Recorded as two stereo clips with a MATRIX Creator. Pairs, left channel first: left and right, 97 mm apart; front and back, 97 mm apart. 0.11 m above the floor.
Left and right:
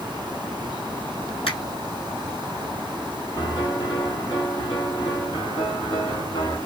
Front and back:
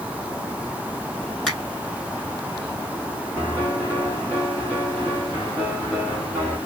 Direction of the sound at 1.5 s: 85° left.